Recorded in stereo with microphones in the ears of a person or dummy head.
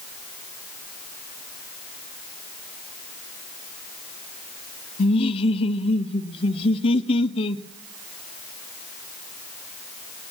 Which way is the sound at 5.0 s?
30° left (ahead or behind).